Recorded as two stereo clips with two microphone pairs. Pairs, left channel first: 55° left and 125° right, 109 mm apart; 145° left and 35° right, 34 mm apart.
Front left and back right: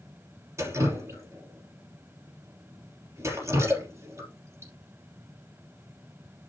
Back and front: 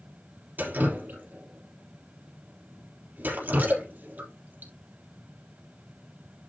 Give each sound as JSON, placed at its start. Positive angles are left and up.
{"t": 0.6, "sound": "dripping", "azimuth_deg": -60, "distance_m": 3.5}